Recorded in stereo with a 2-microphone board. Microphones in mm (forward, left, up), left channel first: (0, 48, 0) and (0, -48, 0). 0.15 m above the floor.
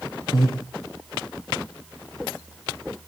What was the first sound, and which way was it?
Breathing, 50° left (ahead or behind).